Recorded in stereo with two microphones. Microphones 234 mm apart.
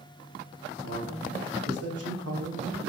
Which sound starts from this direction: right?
A man speaking, at 0.8 s.